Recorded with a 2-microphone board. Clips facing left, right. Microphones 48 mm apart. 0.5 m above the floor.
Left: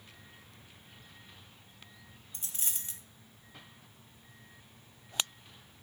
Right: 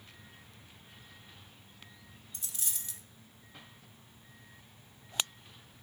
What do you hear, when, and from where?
2.3 s a dropped coin: 35° left (ahead or behind), 0.6 m